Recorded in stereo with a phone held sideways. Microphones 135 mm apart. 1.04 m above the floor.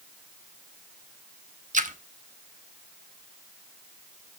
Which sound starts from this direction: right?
A splash, at 1.7 s.